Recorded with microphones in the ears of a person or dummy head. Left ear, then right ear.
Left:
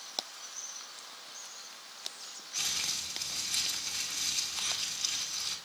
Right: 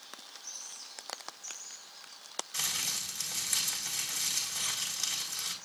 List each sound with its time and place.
2.5 s crumpling: 55° right (ahead or behind), 4 m